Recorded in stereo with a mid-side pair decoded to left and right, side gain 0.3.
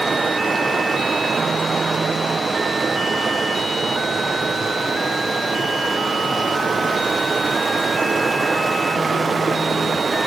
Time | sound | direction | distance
0.0 | running water | 40° right | 0.8 m